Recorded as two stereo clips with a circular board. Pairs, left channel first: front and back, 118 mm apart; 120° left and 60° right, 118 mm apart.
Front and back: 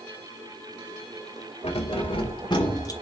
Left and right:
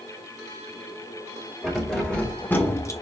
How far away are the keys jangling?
About 2 m.